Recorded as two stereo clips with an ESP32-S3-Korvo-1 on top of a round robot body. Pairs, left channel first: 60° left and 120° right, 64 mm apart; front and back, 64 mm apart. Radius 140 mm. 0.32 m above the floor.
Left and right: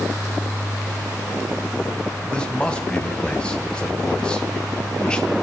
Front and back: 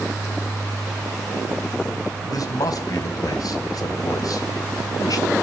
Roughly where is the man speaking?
Ahead.